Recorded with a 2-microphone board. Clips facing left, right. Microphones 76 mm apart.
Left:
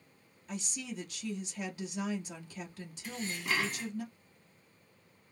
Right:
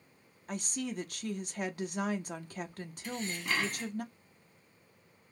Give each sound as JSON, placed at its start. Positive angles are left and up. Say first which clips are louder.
{"t": 0.5, "sound": "a woman speaking", "louder": "right 4 dB", "side_deg": -55, "distance_m": 0.6}
{"t": 3.0, "sound": "dishes clattering", "louder": "even", "side_deg": 0, "distance_m": 0.8}